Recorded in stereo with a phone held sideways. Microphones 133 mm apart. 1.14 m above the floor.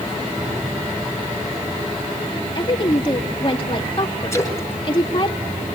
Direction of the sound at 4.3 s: 20° left (ahead or behind).